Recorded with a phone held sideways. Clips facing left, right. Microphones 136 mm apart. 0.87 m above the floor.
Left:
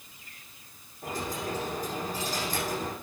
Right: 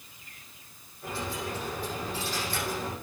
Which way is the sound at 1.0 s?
40° left (ahead or behind).